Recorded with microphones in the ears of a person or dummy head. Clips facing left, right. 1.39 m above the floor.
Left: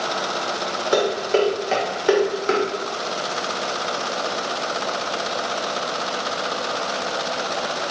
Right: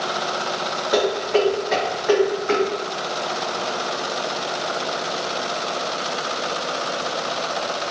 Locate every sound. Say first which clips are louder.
0.9 s dishes clattering: even; 45° left (ahead or behind), 0.8 m